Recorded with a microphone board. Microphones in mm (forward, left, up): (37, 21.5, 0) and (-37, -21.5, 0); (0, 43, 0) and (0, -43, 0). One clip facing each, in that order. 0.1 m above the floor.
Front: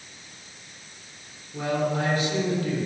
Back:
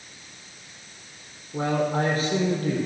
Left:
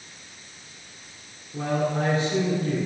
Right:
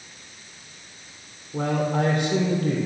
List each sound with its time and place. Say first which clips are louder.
1.5 s a man speaking: back 2 dB, right 1 dB; 105° right, 3.5 m